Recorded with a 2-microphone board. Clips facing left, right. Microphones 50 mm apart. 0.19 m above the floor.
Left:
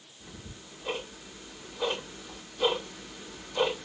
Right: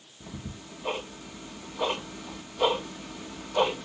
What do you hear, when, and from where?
0.2 s ticking: 80° right, 3 m